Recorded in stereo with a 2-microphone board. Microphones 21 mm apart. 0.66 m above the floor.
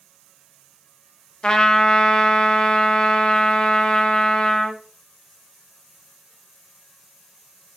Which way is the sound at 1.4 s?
35° left (ahead or behind).